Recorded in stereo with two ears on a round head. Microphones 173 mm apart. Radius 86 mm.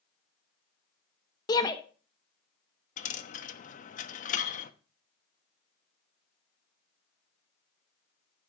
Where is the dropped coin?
40° left (ahead or behind), 1.1 m.